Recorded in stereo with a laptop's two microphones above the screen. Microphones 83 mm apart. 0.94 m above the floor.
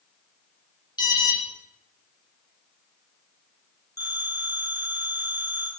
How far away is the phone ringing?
About 2.5 m.